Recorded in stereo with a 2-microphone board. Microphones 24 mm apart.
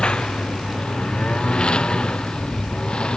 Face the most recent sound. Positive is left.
turn(degrees=45)  # may be behind; listen again after turning